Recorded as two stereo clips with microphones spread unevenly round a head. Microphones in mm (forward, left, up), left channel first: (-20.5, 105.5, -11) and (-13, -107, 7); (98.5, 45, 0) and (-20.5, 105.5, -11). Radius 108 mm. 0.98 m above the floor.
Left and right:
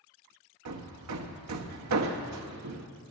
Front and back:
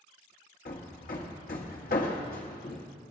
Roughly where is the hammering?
Right.